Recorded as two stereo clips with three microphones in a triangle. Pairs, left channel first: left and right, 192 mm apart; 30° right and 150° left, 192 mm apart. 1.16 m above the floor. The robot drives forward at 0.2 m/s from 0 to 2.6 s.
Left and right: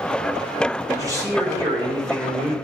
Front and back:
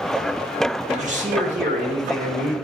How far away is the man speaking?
About 1.8 m.